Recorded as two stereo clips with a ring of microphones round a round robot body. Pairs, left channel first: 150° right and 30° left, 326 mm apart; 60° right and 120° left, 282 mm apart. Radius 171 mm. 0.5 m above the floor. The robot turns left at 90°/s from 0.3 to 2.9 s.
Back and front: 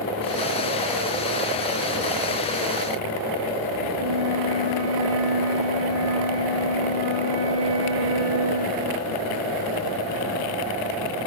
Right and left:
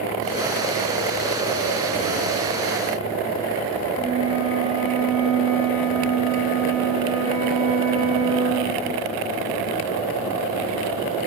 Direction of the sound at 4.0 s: 50° left.